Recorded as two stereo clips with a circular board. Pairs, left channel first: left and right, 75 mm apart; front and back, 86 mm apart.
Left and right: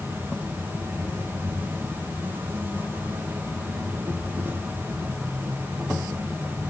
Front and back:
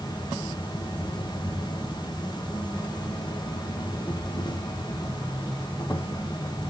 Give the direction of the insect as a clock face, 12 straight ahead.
1 o'clock.